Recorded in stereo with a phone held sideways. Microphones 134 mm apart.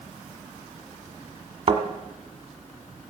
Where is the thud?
40° right (ahead or behind), 1.3 m.